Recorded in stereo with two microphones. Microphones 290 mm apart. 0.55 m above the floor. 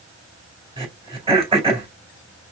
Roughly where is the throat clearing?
Centre.